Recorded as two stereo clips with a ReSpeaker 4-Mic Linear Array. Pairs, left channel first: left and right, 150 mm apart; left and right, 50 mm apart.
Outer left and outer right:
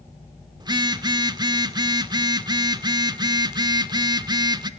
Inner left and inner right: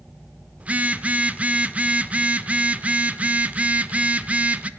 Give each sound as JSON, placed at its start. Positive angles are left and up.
{"t": 0.6, "sound": "a phone buzzing", "side_deg": -30, "distance_m": 1.3}